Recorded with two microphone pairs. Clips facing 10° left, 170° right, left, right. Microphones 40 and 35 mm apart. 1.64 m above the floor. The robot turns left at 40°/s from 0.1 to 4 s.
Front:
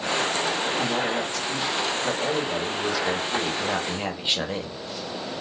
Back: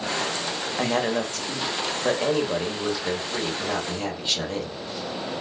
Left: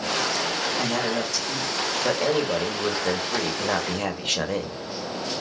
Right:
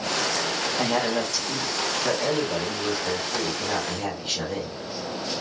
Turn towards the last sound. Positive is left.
turn(degrees=75)